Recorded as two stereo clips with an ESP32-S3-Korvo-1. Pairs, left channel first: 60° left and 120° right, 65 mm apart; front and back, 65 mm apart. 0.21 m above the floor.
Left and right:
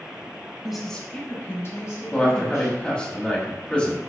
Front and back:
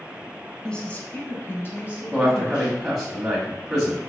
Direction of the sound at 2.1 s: 95° left.